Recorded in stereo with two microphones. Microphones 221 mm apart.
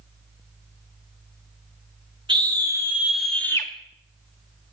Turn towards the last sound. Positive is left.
turn(degrees=20)  # may be behind; listen again after turning